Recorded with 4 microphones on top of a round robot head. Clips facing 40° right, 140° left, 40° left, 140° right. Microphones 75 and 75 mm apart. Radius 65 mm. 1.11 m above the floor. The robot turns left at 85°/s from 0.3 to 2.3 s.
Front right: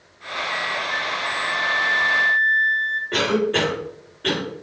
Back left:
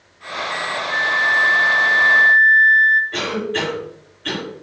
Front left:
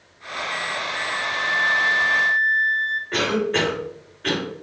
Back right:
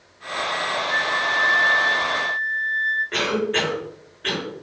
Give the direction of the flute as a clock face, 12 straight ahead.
5 o'clock.